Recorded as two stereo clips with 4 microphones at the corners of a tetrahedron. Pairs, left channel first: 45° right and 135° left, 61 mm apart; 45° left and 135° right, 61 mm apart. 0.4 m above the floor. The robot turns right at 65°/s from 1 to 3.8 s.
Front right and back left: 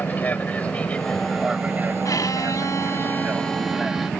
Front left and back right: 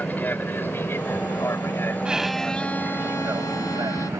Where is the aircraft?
Straight ahead; by 4.2 s 130° right.